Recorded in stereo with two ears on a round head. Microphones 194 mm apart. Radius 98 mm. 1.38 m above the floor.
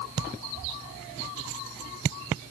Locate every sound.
Only background noise.